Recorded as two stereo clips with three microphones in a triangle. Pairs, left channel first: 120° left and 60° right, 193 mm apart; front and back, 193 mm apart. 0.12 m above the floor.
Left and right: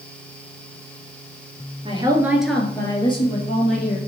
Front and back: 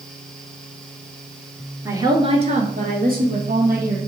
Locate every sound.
1.9 s a woman speaking: 110° right, 1.8 m; by 4.0 s 155° left, 3 m